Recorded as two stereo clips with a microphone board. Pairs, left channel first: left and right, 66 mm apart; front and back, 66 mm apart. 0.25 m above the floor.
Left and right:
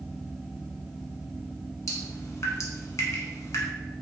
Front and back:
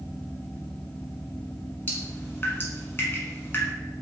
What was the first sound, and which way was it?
Dripping, 50° left.